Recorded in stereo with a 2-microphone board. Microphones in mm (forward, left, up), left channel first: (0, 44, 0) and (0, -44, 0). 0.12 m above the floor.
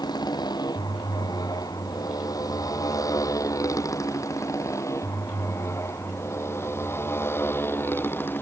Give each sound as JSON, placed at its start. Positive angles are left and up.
{"t": 0.0, "sound": "a motorcycle", "side_deg": 50}